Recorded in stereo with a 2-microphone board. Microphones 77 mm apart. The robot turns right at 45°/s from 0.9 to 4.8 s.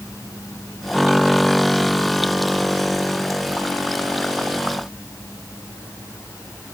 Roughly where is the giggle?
No giggle in this recording.